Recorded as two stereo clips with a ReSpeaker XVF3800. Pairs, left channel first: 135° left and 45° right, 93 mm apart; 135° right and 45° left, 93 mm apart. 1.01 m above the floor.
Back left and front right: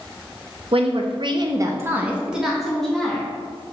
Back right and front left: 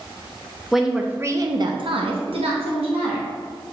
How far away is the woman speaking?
About 0.6 m.